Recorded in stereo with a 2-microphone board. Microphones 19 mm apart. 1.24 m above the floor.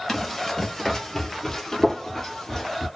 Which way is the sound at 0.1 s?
15° left (ahead or behind).